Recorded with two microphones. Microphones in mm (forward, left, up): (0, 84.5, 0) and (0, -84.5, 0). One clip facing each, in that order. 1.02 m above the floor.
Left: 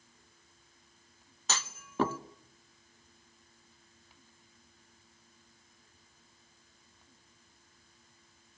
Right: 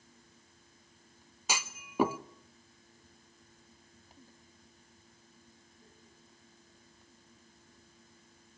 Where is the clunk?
10° right (ahead or behind), 1.0 m.